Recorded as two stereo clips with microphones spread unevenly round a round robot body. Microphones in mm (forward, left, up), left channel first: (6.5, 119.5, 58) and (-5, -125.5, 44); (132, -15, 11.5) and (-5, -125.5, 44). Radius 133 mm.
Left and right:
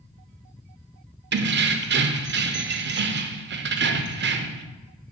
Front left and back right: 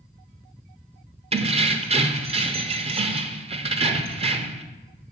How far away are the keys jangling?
About 0.6 m.